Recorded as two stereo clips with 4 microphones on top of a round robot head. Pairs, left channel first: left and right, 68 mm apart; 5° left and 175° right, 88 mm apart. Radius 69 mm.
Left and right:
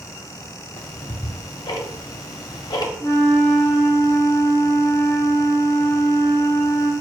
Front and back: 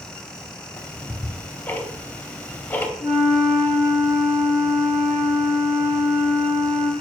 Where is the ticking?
75° left, 0.5 m.